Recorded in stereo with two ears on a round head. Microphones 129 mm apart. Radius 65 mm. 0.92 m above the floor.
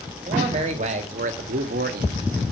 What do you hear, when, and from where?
0.3 s a man speaking: 40° right (ahead or behind), 2 m; by 2.3 s 70° right (ahead or behind), 1.3 m